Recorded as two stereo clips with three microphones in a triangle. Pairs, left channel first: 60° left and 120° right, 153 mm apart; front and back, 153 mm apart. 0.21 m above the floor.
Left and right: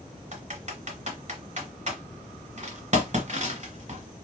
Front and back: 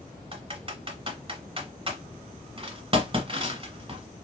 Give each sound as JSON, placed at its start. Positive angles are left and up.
{"t": 0.3, "sound": "typing on a keyboard", "azimuth_deg": -140, "distance_m": 1.1}